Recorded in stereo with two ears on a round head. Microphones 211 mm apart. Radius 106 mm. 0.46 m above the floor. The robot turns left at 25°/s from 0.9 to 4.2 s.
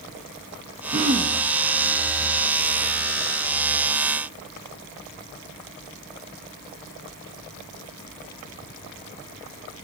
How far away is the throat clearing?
About 1.0 m.